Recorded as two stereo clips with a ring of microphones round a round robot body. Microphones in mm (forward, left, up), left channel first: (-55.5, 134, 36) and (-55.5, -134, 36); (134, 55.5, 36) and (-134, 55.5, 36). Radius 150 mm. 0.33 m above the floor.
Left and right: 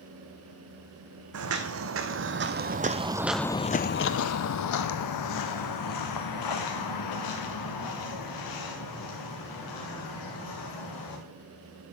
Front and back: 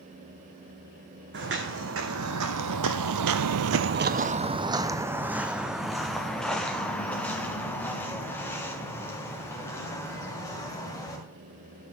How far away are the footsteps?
About 1.2 m.